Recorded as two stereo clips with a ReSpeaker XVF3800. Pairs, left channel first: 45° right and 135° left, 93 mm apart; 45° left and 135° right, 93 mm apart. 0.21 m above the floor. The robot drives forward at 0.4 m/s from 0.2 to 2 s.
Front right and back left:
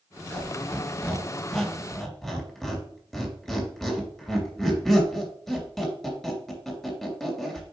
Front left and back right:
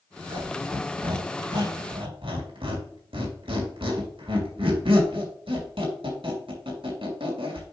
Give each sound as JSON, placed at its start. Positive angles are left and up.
{"t": 0.3, "sound": "a squeak", "azimuth_deg": -115, "distance_m": 2.5}